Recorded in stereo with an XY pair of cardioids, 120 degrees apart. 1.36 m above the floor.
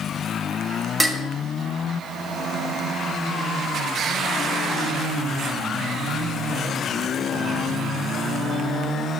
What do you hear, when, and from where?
1.0 s dishes clattering: 15° right, 1.0 m